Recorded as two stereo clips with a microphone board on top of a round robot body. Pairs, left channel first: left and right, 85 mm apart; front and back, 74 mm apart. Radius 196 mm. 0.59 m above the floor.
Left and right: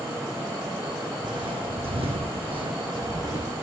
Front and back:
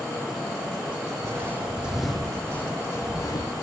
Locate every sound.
1.2 s footsteps: 125° right, 2 m; by 3.6 s 40° right, 3 m